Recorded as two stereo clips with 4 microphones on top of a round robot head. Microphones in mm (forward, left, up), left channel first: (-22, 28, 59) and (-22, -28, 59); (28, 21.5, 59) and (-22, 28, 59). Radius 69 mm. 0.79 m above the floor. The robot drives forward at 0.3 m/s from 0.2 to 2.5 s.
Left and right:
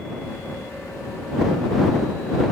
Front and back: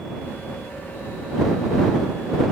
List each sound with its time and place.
Only background noise.